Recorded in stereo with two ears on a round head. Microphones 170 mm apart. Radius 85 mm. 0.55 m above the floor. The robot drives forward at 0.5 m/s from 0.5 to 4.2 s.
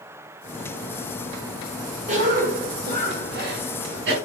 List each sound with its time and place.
2.1 s a cough: 40° right (ahead or behind), 1.6 m; by 4.1 s 60° right (ahead or behind), 1.2 m